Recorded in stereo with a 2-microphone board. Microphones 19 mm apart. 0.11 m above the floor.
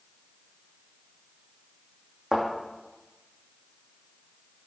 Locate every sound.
2.3 s a thud: 25° right (ahead or behind), 3 m